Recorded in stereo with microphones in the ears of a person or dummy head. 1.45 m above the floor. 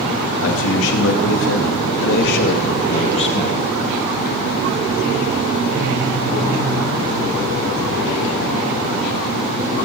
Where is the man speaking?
80° left, 3 m; by 3.6 s 30° left (ahead or behind), 1.9 m.